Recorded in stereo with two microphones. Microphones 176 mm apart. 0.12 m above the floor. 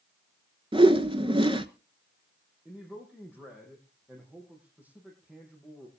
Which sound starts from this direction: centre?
A man speaking, at 2.6 s.